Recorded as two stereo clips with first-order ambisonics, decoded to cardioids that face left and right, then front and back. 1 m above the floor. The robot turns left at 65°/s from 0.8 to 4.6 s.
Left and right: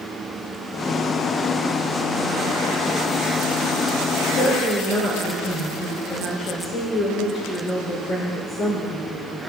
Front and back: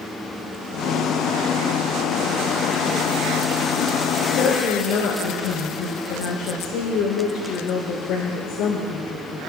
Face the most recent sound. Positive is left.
turn(degrees=35)